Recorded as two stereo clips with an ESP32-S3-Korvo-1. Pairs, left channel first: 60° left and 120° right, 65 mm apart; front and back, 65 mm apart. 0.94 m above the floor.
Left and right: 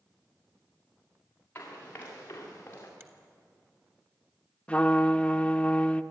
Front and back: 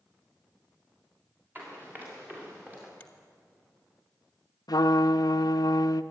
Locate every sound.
1.6 s running footsteps: 120° left, 6.5 m; by 2.9 s 115° left, 6 m
3.0 s a finger snap: 70° right, 1.9 m
4.7 s a trumpet: 10° right, 0.6 m